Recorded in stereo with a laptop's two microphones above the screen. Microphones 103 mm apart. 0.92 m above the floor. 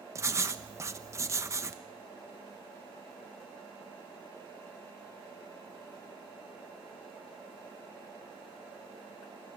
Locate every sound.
0.1 s writing: 30° right (ahead or behind), 0.9 m